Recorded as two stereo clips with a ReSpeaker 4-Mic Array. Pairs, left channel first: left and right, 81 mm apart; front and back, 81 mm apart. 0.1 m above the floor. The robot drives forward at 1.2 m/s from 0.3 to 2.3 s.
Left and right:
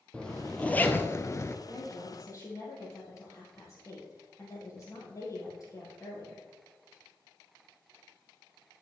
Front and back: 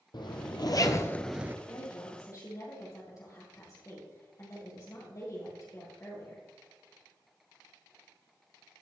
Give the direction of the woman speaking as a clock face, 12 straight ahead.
11 o'clock.